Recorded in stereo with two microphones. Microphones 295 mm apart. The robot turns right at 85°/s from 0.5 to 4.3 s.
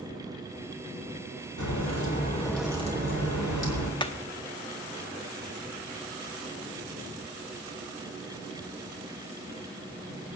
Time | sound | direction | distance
1.6 | a crack | 95° left | 4 m
4.0 | hammering | 15° left (ahead or behind) | 1.0 m